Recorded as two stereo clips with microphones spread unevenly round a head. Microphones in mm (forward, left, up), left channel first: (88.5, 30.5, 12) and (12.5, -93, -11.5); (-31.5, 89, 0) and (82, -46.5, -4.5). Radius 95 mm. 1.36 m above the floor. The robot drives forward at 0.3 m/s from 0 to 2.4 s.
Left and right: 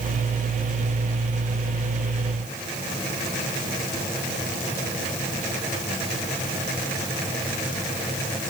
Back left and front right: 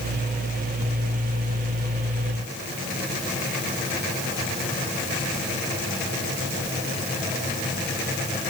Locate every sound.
Only background noise.